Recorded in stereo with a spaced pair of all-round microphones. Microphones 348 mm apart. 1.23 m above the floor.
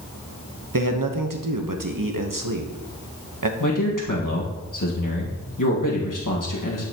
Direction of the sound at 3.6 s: 65° left (ahead or behind).